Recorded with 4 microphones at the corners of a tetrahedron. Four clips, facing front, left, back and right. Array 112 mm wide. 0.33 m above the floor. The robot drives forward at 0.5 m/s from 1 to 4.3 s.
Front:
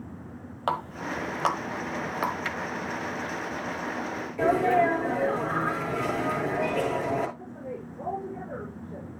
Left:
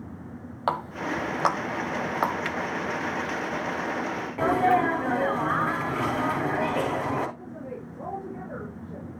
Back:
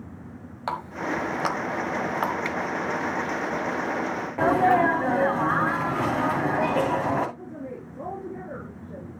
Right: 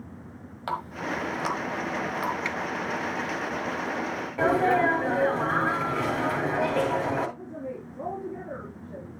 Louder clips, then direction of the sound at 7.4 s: Right 1 dB, back 1 dB; 150° right.